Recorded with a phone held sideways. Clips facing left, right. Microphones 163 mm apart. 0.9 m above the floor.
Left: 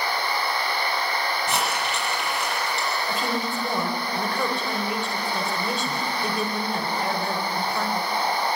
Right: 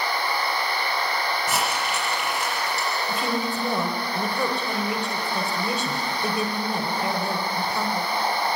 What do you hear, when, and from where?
1.5 s crumpling: centre (ahead or behind), 6.5 m
3.1 s a woman speaking: centre (ahead or behind), 4 m